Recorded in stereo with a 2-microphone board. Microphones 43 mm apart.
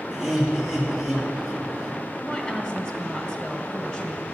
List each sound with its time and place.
0.1 s laughter: 15° right (ahead or behind), 3.5 m
2.2 s a woman speaking: 20° left (ahead or behind), 1.2 m